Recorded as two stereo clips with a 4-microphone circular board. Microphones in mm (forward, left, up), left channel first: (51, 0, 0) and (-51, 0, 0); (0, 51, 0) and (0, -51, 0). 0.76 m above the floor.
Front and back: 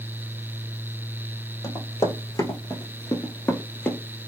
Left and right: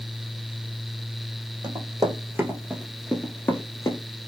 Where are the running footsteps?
50° right, 1.4 m; by 4.0 s 80° left, 0.9 m.